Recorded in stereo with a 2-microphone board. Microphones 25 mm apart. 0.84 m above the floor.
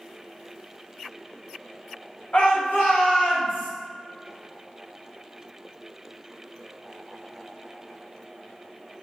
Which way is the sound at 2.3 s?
50° left (ahead or behind).